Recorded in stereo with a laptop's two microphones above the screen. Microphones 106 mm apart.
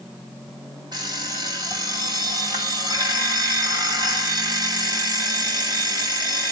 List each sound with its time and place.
0.9 s an alarm clock: 40° right (ahead or behind), 2.5 m